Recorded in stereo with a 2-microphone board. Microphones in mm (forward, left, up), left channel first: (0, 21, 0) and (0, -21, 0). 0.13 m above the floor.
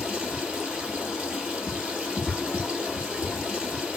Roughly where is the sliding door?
No sliding door in this recording.